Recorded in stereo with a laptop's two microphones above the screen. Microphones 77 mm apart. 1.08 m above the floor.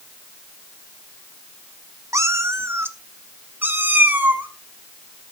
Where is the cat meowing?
40° right (ahead or behind), 0.8 m; by 4.5 s 20° right (ahead or behind), 2 m.